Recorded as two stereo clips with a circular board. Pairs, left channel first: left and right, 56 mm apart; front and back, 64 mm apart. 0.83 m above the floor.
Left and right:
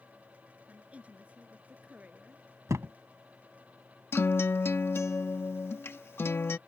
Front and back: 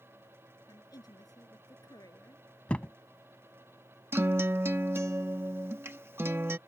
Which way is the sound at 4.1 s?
130° left.